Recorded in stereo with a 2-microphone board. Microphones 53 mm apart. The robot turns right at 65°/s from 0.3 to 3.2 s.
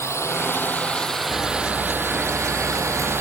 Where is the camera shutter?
145° left; by 3.2 s 90° right.